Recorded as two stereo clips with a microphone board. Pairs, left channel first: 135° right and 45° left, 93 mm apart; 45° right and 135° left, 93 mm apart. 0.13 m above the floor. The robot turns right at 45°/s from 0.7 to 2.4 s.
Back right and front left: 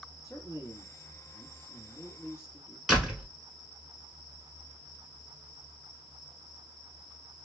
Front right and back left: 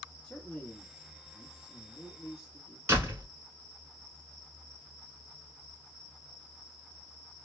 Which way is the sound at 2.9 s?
120° left.